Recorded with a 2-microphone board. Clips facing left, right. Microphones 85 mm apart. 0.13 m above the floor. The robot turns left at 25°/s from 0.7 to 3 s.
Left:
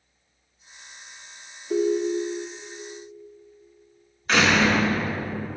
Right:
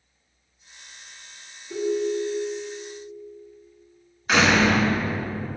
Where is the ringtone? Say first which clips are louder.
Left 2 dB; 55° left (ahead or behind), 1.4 m; by 2.6 s 65° left (ahead or behind), 1.4 m.